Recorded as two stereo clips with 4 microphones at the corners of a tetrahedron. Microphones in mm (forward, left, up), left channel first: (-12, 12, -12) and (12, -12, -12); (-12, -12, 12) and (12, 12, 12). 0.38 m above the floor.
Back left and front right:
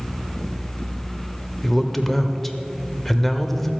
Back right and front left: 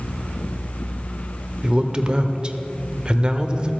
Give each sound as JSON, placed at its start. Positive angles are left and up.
{"t": 1.6, "sound": "a man speaking", "azimuth_deg": 50, "distance_m": 0.8}